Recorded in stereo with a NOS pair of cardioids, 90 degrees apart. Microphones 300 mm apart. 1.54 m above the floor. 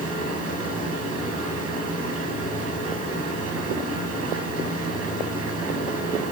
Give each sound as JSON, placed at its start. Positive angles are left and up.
{"t": 0.0, "sound": "a machine running", "azimuth_deg": -50, "distance_m": 7.0}